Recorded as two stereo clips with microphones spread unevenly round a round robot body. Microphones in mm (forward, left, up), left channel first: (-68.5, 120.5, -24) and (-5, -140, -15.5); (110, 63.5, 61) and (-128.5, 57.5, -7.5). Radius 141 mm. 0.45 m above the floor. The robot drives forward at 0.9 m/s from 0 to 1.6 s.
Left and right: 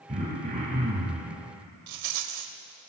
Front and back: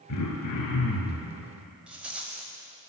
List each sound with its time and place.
0.1 s throat clearing: 5° right, 4 m; by 1.3 s 10° right, 3 m
1.9 s a rattle: 95° right, 0.8 m